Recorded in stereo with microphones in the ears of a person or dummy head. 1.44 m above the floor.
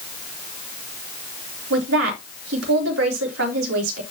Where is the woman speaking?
80° right, 3.5 m.